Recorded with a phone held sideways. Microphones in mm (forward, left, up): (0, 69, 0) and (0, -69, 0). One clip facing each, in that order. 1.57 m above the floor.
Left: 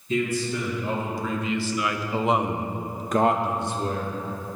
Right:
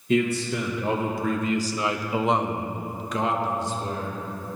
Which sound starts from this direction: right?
A man speaking, at 0.1 s.